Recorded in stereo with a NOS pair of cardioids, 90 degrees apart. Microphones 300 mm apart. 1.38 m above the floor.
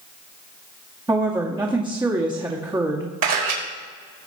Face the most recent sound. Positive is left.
turn(degrees=-65)